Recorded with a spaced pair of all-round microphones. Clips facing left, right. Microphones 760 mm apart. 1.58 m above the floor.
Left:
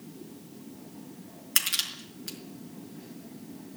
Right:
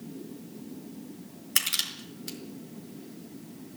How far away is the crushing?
About 4.5 m.